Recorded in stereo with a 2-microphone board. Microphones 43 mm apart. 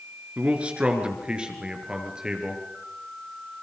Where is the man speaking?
25° right (ahead or behind), 3.5 m; by 2.6 s 15° right (ahead or behind), 4.5 m.